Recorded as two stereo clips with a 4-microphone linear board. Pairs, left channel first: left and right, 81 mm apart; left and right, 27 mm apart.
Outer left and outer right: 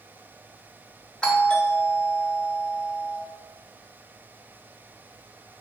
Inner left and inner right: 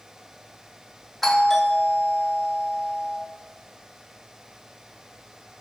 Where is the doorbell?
10° left (ahead or behind), 1.4 m.